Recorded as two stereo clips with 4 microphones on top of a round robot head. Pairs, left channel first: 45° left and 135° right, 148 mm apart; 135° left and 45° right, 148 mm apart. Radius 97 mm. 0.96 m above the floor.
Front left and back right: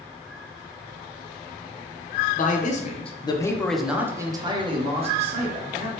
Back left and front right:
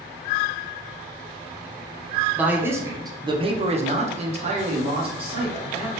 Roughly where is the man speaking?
Ahead left.